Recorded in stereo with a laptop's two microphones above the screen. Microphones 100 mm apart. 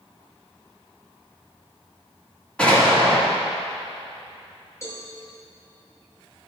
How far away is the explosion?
About 2.5 m.